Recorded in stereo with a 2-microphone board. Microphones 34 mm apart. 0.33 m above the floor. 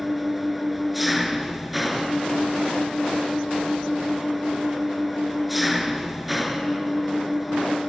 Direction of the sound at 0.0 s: 5° right (ahead or behind).